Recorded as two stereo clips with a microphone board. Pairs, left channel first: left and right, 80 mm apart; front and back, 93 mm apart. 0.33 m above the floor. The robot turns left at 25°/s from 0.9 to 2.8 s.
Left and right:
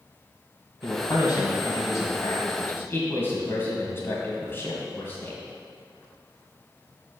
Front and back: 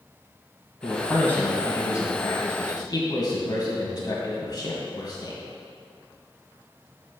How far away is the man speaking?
About 1.9 m.